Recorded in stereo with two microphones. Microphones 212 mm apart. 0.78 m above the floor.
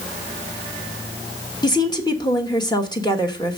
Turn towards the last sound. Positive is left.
turn(degrees=20)  # may be behind; listen again after turning